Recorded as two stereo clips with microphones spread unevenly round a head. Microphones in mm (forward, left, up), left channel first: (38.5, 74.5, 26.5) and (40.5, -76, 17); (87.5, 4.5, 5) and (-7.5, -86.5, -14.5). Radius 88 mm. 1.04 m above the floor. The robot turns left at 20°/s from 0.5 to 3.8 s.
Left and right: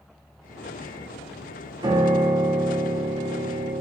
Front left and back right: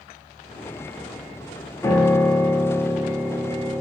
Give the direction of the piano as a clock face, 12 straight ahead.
1 o'clock.